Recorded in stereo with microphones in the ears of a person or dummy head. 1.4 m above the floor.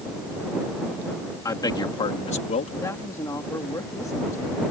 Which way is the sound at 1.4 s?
20° left (ahead or behind).